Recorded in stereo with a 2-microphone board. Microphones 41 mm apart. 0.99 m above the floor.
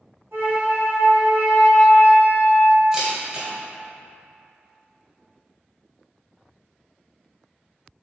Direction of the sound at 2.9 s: 15° right (ahead or behind).